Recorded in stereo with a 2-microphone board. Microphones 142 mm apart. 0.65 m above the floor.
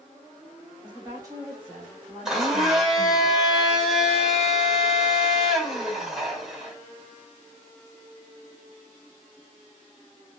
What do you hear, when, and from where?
0.8 s a woman speaking: 30° right (ahead or behind), 1.1 m; by 3.2 s 30° left (ahead or behind), 1.3 m
2.2 s a blender: 5° right (ahead or behind), 1.1 m